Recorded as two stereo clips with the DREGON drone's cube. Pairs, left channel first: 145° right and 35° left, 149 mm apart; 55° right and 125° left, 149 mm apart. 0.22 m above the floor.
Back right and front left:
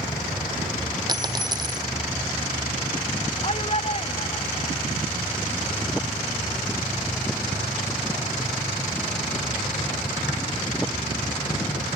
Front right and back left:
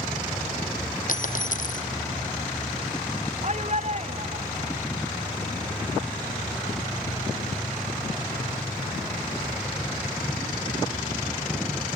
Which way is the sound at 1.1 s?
30° right.